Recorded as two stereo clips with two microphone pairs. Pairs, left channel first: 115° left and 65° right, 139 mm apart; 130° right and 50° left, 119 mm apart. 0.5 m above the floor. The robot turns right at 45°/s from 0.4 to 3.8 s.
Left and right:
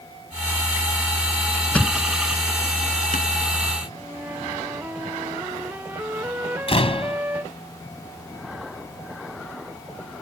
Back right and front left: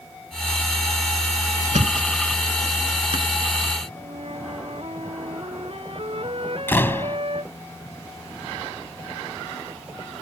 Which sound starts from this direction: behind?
A door slam, at 6.7 s.